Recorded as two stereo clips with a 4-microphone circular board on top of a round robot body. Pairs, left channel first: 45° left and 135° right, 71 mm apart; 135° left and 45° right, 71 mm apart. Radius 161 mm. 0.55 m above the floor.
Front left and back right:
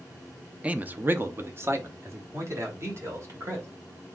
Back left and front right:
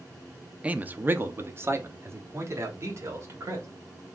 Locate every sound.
0.6 s a man speaking: 90° right, 0.7 m